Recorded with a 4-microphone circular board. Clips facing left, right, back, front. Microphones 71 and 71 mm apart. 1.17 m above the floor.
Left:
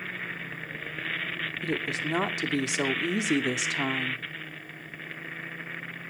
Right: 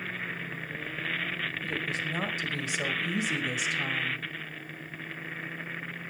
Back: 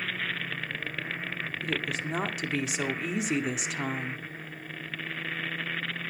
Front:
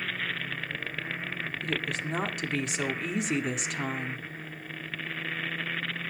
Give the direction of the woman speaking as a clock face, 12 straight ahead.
9 o'clock.